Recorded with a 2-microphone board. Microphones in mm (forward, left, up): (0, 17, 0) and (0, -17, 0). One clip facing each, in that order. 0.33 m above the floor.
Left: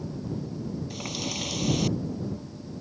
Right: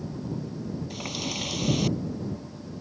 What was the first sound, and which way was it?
A running tap, 5° right (ahead or behind).